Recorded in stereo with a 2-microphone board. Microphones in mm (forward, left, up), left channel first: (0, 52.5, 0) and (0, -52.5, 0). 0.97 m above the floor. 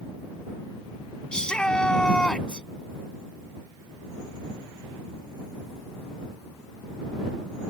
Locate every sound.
1.3 s a shout: 10° left (ahead or behind)